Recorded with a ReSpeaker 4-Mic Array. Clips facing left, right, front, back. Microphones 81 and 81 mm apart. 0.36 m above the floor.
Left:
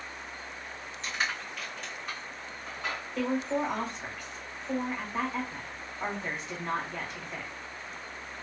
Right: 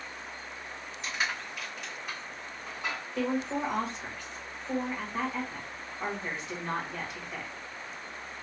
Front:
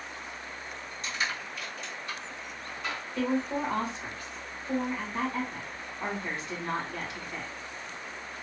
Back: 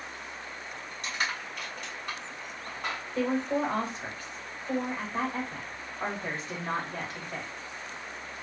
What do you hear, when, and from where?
1.0 s crushing: 170° right, 2.0 m
3.1 s a woman speaking: straight behind, 1.4 m